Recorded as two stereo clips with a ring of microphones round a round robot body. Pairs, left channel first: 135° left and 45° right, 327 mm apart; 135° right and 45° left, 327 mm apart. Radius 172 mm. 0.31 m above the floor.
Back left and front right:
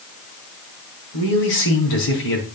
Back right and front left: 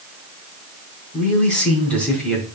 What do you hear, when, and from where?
1.1 s a man speaking: 140° left, 4 m